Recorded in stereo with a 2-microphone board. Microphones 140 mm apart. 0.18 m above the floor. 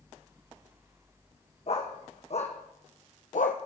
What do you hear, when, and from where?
1.7 s a dog barking: 50° left (ahead or behind), 3 m; by 3.6 s 75° left (ahead or behind), 1.3 m